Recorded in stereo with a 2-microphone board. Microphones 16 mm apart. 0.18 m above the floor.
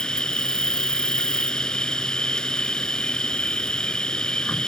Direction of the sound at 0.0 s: 60° left (ahead or behind).